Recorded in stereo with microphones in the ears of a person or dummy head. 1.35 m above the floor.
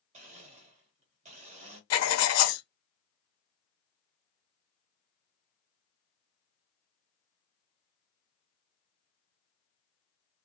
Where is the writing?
80° left, 0.6 m.